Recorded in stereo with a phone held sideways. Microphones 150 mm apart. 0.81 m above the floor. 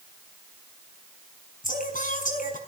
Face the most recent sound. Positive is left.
turn(degrees=65)  # may be behind; listen again after turning